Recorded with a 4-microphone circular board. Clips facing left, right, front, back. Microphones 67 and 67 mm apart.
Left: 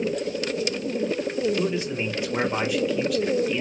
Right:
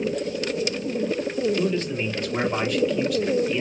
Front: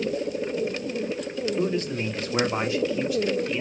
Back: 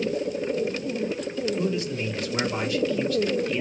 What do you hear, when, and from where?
1.6 s a man speaking: 20° left, 1.4 m; by 3.6 s 85° right, 0.9 m